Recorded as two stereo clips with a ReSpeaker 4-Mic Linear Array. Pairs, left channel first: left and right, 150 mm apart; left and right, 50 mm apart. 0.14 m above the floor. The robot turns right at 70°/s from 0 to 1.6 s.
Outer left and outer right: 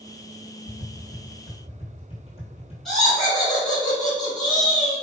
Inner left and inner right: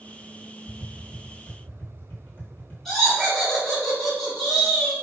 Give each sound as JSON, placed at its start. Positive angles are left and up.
{"t": 0.7, "sound": "tapping", "side_deg": 70, "distance_m": 1.1}
{"t": 2.9, "sound": "laughter", "side_deg": 0, "distance_m": 1.3}